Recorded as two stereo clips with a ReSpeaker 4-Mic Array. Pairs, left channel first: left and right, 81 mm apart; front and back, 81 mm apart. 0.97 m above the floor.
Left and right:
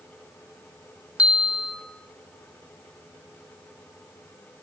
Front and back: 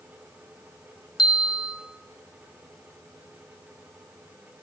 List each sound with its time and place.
1.2 s a bell: 15° right, 3 m